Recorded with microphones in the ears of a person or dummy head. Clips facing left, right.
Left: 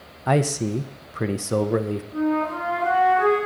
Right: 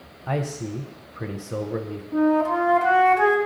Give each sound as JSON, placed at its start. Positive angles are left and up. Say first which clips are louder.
{"t": 0.3, "sound": "a man speaking", "louder": "left 6 dB", "side_deg": 65, "distance_m": 0.6}
{"t": 2.1, "sound": "a flute", "louder": "right 5 dB", "side_deg": -80, "distance_m": 1.7}